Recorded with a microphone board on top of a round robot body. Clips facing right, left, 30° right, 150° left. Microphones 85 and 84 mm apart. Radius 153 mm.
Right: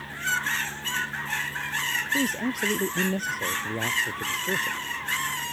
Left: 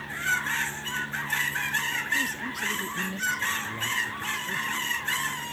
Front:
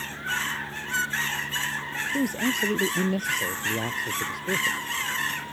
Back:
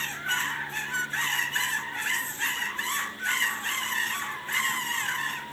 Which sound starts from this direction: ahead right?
A man speaking, at 2.1 s.